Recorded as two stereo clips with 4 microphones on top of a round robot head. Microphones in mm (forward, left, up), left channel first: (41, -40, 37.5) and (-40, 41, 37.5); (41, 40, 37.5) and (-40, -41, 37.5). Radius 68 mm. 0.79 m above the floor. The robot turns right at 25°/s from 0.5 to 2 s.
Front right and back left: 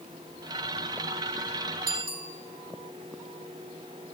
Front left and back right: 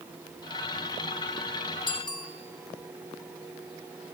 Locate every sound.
1.9 s a bicycle bell: 95° left, 4.5 m